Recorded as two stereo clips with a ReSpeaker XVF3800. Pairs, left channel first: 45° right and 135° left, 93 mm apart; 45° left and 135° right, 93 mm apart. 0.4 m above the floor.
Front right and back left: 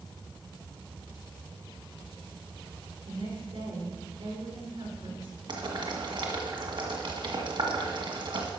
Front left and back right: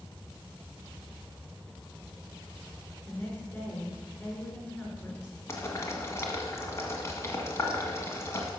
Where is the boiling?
105° left, 1.9 m.